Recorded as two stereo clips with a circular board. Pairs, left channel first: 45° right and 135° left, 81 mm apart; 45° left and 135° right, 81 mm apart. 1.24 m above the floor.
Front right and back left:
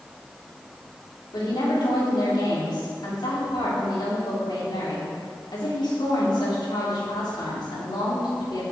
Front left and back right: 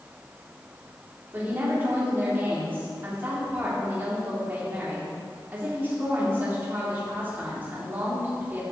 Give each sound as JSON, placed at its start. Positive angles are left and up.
{"t": 1.3, "sound": "a woman speaking", "azimuth_deg": -70, "distance_m": 3.5}